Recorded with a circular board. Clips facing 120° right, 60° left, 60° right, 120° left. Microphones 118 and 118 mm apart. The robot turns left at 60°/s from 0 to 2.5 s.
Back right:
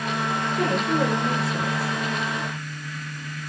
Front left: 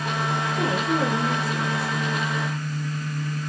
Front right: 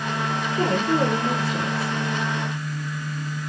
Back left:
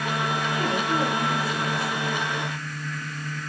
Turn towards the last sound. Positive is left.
turn(degrees=-120)